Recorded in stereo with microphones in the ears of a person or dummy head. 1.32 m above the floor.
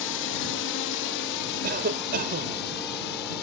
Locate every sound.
0.0 s a drone: 60° left (ahead or behind)
1.6 s a cough: 45° right (ahead or behind)